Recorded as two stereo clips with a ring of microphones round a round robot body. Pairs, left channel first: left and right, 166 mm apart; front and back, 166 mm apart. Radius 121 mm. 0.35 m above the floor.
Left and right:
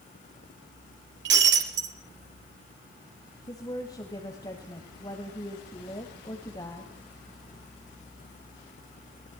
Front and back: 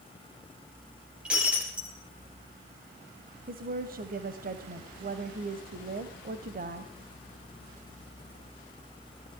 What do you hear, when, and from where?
1.2 s breaking glass: 95° right, 3.5 m
3.5 s a woman speaking: 160° left, 2.0 m